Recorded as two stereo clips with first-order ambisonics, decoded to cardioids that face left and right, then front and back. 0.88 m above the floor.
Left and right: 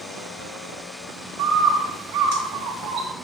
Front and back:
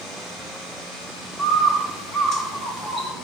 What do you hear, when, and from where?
1.4 s a bird: 60° right, 2 m